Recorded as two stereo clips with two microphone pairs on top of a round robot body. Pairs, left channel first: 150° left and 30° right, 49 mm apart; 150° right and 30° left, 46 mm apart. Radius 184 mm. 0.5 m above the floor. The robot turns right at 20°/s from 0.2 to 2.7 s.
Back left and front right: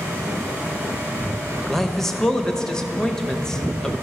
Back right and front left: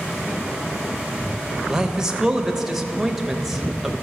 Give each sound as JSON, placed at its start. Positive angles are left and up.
{"t": 1.7, "sound": "a man speaking", "azimuth_deg": 75, "distance_m": 1.0}